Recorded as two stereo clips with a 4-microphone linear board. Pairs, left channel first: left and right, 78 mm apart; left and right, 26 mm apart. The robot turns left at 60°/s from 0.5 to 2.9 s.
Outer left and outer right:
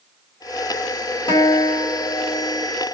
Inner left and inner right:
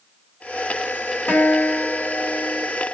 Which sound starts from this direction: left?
A guitar, at 1.3 s.